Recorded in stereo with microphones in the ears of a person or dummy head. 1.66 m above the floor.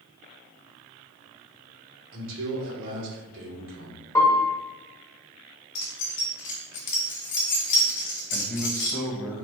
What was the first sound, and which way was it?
A man speaking, 80° right.